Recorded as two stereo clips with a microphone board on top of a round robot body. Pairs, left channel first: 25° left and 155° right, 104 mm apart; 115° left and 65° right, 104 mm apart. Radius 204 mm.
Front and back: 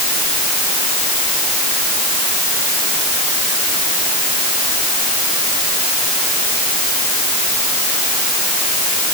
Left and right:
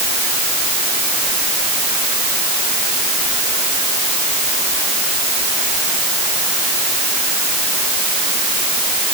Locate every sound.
Only background noise.